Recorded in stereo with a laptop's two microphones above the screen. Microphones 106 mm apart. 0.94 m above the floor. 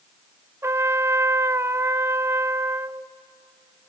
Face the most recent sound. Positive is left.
turn(degrees=-25)  # may be behind; listen again after turning